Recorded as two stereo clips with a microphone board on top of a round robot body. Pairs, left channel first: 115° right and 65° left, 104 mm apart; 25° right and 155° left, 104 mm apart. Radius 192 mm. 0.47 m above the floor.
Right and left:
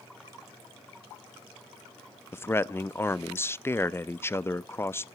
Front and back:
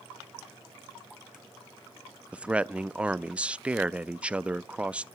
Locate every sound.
2.3 s a man speaking: 140° right, 0.7 m